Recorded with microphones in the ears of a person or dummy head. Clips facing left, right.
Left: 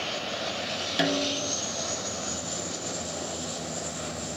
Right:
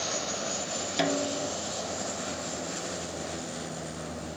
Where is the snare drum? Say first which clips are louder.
Left 1 dB; 5° left (ahead or behind).